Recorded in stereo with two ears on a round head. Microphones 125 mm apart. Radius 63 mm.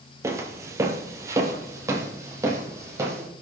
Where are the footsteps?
20° right (ahead or behind), 1.3 m.